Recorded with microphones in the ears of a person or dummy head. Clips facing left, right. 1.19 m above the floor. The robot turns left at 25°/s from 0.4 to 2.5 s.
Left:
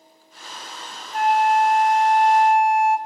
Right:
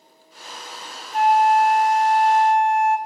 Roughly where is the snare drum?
I don't hear a snare drum.